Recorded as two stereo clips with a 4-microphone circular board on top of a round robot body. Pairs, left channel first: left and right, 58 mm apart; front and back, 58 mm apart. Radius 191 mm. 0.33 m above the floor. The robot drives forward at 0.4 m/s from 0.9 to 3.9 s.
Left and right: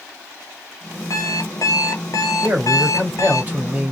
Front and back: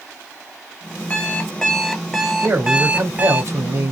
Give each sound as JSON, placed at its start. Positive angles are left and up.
{"t": 1.1, "sound": "an alarm clock", "azimuth_deg": 65, "distance_m": 1.1}
{"t": 2.4, "sound": "a man speaking", "azimuth_deg": -140, "distance_m": 2.0}